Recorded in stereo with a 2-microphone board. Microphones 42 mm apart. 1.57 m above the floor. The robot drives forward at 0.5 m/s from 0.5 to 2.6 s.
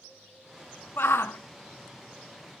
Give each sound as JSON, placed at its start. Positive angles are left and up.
{"t": 1.0, "sound": "a shout", "side_deg": 55, "distance_m": 0.7}